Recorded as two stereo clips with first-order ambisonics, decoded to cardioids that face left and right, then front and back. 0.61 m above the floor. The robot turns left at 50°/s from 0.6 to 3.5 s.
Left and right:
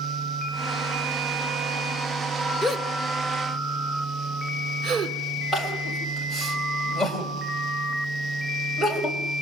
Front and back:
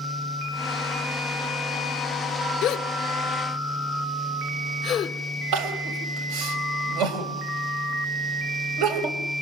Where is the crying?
175° right, 3.5 m.